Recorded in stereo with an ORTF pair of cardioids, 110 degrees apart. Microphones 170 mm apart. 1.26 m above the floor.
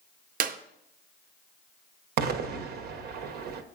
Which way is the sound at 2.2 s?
70° right.